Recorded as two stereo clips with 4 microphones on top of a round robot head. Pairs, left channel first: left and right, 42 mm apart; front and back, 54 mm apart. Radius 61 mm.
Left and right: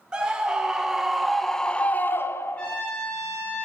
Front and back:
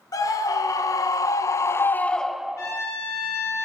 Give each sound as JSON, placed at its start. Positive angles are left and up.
{"t": 0.1, "sound": "a scream", "azimuth_deg": -20, "distance_m": 1.6}
{"t": 2.6, "sound": "a trumpet", "azimuth_deg": 25, "distance_m": 4.0}